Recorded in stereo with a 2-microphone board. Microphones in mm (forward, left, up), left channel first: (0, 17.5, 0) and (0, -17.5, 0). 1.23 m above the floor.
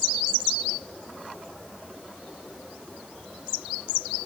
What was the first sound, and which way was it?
Only background noise.